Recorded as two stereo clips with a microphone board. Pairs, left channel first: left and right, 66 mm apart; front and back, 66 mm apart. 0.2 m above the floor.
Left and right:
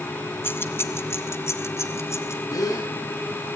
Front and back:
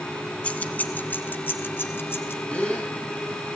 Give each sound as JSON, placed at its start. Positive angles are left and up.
{"t": 0.4, "sound": "keys jangling", "azimuth_deg": 60, "distance_m": 1.1}
{"t": 2.5, "sound": "a gasp", "azimuth_deg": 75, "distance_m": 4.0}